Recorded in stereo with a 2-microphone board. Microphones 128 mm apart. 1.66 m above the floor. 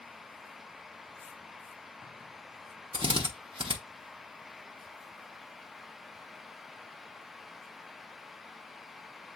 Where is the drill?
40° right (ahead or behind), 0.9 m.